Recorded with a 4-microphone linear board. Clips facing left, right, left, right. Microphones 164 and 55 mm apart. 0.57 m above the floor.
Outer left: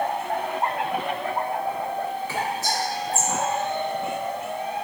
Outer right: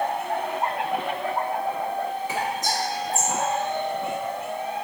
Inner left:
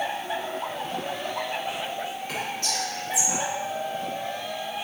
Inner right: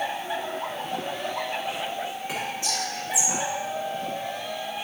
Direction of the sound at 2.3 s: 20° right (ahead or behind).